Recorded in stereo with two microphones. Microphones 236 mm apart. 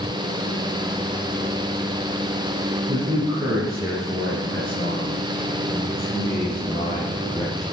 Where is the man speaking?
20° right (ahead or behind), 5 m; by 7.6 s 15° left (ahead or behind), 6.5 m.